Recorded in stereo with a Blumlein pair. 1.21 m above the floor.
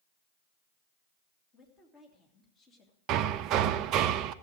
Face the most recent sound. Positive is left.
turn(degrees=-35)